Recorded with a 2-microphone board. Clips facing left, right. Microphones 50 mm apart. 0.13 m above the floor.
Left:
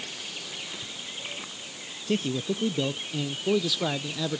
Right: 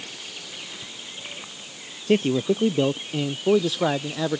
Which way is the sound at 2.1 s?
40° right (ahead or behind).